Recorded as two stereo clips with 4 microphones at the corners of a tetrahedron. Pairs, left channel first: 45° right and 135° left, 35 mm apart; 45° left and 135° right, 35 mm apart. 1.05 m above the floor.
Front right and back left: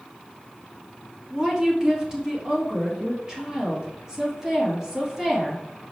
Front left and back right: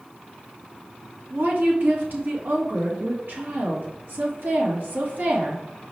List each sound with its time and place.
1.3 s a woman speaking: 155° right, 2.0 m